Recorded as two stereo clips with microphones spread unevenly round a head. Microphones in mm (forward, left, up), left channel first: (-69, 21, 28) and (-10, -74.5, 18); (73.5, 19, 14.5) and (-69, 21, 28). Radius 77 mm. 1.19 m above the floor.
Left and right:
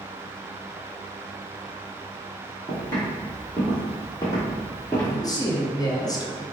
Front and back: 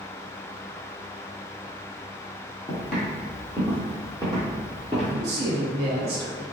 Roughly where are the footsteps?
Left.